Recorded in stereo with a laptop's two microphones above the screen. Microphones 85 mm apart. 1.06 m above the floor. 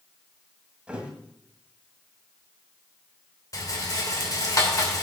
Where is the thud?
15° right (ahead or behind), 1.5 m.